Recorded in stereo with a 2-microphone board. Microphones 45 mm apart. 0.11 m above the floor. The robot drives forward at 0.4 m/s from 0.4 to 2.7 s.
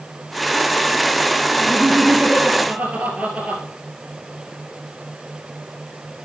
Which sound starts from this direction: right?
Laughter, at 1.6 s.